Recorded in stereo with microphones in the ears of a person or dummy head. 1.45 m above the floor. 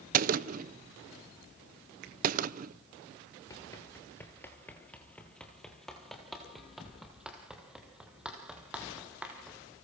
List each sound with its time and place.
0.1 s a gunshot: 45° right (ahead or behind), 0.8 m
2.0 s a finger snap: 65° right (ahead or behind), 1.9 m
3.5 s running footsteps: 15° left (ahead or behind), 1.6 m; by 9.6 s 10° right (ahead or behind), 4 m